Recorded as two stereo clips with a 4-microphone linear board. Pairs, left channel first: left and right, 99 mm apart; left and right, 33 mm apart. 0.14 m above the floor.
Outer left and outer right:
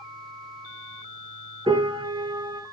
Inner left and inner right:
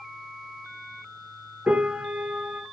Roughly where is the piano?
Right.